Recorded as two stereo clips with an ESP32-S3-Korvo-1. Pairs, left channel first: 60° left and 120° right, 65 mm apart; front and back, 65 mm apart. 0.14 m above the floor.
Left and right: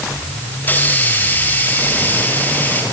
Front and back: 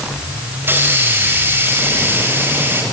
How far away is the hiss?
About 5.5 m.